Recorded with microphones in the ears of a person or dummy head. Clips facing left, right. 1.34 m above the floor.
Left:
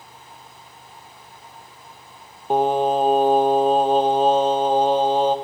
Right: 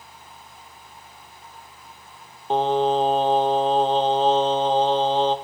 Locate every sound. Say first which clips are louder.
2.5 s singing: left 1 dB; 5° left (ahead or behind), 0.7 m